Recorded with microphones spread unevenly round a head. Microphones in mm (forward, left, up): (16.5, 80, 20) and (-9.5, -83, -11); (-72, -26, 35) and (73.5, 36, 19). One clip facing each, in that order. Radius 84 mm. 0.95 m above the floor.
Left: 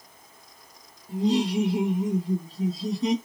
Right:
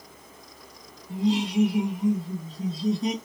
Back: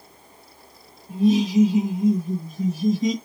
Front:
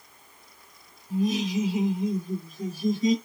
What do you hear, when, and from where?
1.1 s laughter: 135° left, 1.7 m; by 3.1 s 175° left, 1.9 m